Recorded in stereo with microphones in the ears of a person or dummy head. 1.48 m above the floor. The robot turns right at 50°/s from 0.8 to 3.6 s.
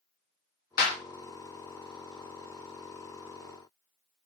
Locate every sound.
0.8 s a clap: 45° left (ahead or behind), 0.6 m; by 1.0 s 50° left (ahead or behind), 0.6 m